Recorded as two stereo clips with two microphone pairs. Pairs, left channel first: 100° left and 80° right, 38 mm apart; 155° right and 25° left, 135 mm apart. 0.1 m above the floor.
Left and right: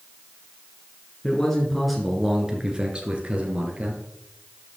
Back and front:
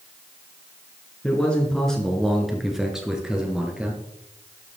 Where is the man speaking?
140° left, 1.7 m; by 4.0 s 50° right, 2.5 m.